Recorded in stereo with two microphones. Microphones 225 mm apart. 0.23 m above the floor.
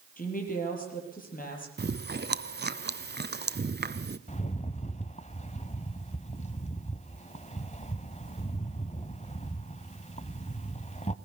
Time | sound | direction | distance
0.2 | a woman speaking | 40° left (ahead or behind) | 6.5 m
1.8 | chewing | 50° right (ahead or behind) | 0.7 m
4.3 | a rattle | 30° left (ahead or behind) | 1.0 m